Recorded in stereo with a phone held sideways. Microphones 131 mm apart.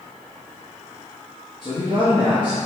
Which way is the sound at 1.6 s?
35° left (ahead or behind).